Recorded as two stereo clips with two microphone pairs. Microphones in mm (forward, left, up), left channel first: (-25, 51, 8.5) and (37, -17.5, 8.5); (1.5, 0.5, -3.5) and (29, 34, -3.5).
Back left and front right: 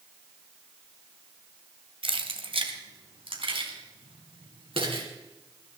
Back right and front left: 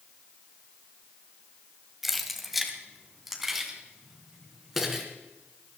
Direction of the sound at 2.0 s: 35° right.